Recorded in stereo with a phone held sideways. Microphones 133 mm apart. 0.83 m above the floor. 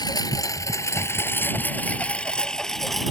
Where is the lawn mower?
30° left (ahead or behind); by 3.1 s centre (ahead or behind).